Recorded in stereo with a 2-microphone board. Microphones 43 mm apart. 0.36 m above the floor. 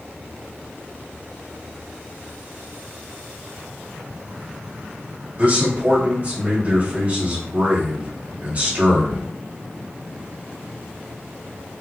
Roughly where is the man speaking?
Right.